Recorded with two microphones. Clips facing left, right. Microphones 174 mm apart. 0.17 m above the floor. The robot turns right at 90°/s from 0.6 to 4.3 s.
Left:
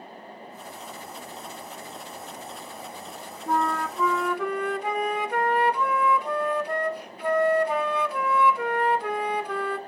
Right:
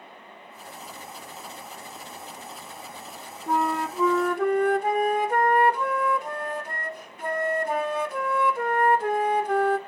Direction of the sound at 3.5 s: Straight behind.